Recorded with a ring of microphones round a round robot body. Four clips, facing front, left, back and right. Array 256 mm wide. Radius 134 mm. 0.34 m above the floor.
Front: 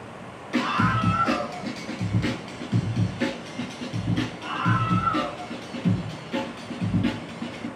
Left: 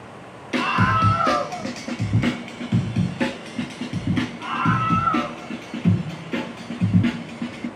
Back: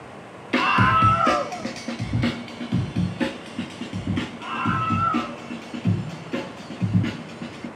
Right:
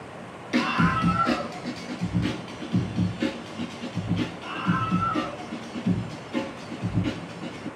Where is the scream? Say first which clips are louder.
Left 3 dB, back 5 dB; 165° left, 1.3 m; by 7.7 s 100° left, 5 m.